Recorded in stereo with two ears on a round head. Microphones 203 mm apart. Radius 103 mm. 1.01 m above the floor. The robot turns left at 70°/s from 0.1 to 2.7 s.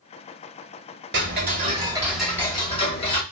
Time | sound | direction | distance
1.1 | ticking | 105° right | 1.0 m